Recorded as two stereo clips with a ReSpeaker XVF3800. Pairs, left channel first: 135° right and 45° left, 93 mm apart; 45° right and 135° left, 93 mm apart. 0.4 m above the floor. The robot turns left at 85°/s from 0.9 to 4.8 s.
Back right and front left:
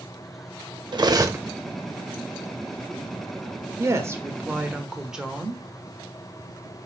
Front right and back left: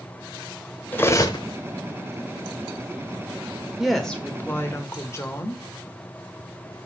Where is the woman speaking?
55° left, 1.3 m; by 5.6 s 30° right, 1.3 m.